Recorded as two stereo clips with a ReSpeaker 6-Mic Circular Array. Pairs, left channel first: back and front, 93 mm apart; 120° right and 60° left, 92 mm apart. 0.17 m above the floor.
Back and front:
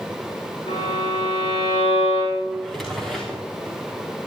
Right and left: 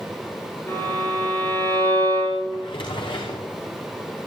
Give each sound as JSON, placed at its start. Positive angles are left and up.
{"t": 0.7, "sound": "a violin", "azimuth_deg": 175, "distance_m": 10.0}
{"t": 2.5, "sound": "a drawer", "azimuth_deg": -90, "distance_m": 6.0}